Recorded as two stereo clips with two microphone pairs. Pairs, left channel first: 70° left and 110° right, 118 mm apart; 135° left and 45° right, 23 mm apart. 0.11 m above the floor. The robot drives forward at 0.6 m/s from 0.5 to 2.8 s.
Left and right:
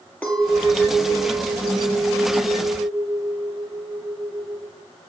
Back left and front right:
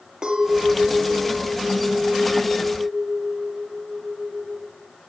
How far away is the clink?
About 1.3 m.